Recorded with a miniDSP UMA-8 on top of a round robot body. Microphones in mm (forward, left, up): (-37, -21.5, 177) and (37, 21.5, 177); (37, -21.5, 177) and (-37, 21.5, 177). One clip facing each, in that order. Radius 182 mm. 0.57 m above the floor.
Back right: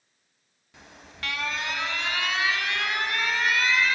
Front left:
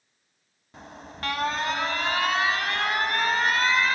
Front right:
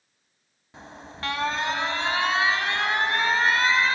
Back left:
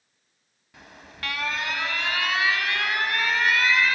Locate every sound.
0.7 s an alarm: 10° left, 1.3 m